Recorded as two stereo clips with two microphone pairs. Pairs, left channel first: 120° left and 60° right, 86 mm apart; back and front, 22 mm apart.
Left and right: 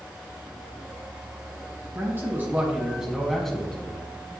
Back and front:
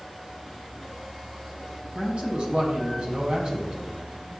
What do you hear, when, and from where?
1.9 s a man speaking: 10° right, 2 m; by 4.0 s 45° left, 2 m